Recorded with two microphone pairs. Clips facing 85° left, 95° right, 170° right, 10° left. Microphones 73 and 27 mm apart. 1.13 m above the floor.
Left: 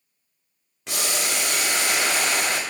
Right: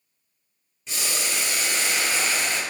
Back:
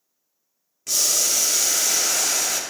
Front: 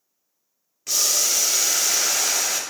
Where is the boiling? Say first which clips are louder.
Left 3 dB, even; 95° left, 0.7 m.